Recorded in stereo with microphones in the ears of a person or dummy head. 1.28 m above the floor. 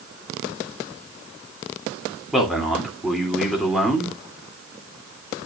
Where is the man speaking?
Centre (ahead or behind), 3 m.